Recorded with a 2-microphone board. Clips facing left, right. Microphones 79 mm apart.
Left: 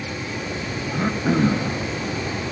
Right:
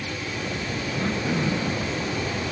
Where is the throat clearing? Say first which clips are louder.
Left 5 dB; 60° left (ahead or behind), 1.4 m.